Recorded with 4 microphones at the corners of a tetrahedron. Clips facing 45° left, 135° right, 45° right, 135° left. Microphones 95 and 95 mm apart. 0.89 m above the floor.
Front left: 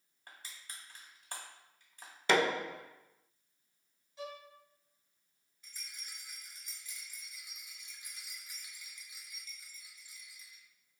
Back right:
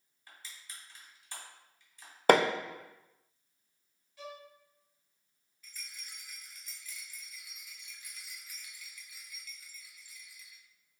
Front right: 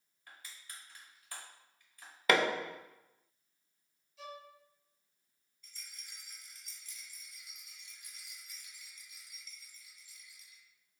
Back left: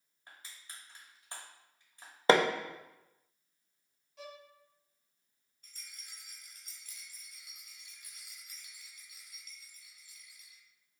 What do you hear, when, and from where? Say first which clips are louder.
0.3 s crushing: even, even; 75° left, 1.1 m
2.3 s hammering: back right 5 dB, back left 4 dB; 170° right, 0.5 m
4.2 s a violin: front left 2 dB, front right 1 dB; 110° left, 1.1 m
5.6 s a rattle: back right 2 dB, even; 105° left, 1.2 m